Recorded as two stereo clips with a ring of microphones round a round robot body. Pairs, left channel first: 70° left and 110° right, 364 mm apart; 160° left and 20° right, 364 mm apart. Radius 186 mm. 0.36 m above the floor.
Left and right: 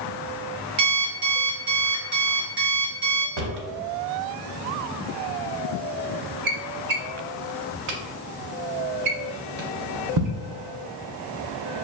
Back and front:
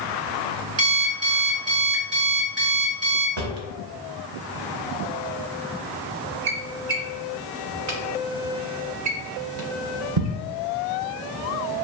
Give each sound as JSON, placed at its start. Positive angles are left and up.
{"t": 0.8, "sound": "an alarm clock", "azimuth_deg": -75, "distance_m": 1.6}
{"t": 3.4, "sound": "a drawer", "azimuth_deg": -70, "distance_m": 0.7}